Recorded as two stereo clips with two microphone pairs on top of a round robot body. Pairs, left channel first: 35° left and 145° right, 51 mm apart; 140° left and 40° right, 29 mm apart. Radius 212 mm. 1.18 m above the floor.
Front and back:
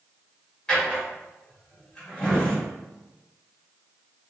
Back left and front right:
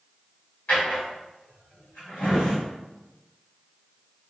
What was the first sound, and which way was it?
A drawer, 105° left.